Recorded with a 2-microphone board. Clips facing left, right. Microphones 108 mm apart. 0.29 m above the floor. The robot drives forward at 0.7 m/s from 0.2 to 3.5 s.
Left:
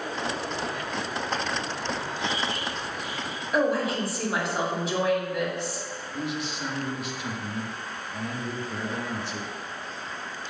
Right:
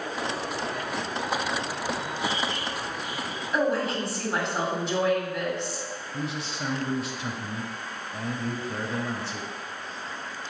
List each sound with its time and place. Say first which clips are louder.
3.5 s a woman speaking: left 1 dB; 5° left (ahead or behind), 2 m
6.1 s a man speaking: left 2 dB; 30° right (ahead or behind), 1.1 m